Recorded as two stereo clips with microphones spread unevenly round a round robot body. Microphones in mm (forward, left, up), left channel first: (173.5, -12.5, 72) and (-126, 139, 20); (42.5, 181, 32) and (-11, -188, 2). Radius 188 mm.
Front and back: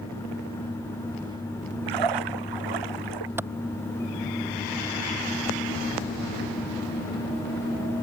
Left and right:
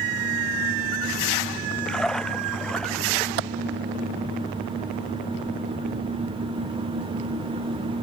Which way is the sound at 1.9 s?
170° left.